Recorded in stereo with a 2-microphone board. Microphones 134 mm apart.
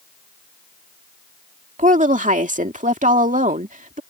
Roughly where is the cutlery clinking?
No cutlery clinking in this recording.